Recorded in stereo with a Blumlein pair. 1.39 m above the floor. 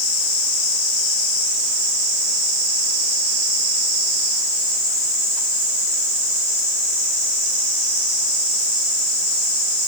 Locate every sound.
Only background noise.